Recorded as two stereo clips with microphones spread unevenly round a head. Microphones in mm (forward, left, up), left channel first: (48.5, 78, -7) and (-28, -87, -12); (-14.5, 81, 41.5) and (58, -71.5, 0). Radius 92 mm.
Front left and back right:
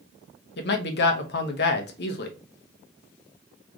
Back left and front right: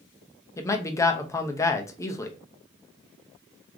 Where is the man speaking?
35° left, 0.7 m.